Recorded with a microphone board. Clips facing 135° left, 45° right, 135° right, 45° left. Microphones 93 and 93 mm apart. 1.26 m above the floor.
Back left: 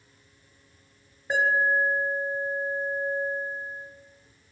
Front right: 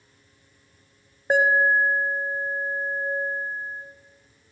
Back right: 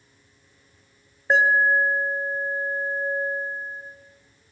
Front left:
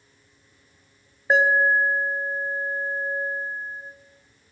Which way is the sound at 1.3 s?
40° right.